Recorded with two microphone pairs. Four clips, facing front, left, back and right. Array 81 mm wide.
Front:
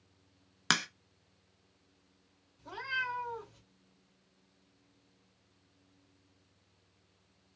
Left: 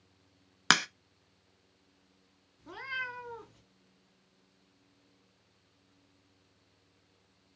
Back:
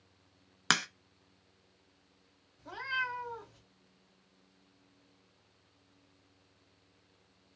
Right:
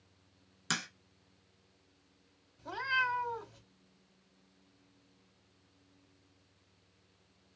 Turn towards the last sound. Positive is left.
turn(degrees=-85)